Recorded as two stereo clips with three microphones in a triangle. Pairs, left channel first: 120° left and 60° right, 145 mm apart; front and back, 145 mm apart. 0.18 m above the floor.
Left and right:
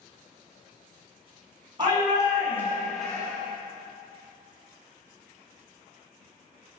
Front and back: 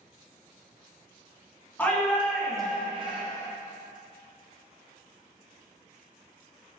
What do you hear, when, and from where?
1.8 s a shout: 70° right, 1.4 m; by 3.2 s 155° right, 1.7 m